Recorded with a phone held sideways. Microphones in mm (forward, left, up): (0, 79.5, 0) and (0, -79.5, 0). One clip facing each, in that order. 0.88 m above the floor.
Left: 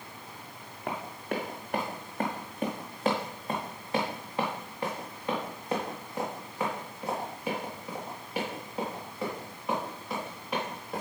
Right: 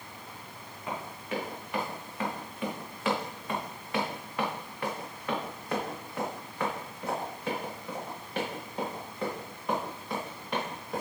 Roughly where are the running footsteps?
Left.